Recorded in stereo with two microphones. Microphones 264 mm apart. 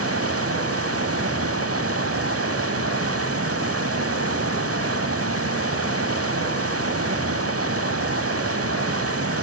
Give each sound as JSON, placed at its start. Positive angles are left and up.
{"t": 0.0, "sound": "running water", "side_deg": -60, "distance_m": 0.8}